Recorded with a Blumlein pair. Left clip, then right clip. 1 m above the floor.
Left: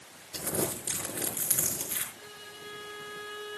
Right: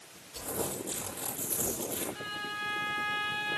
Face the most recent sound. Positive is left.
turn(degrees=-25)